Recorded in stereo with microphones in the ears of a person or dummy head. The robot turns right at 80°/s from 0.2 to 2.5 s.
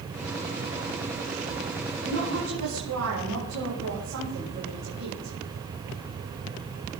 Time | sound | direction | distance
2.0 | a woman speaking | 130° right | 6.5 m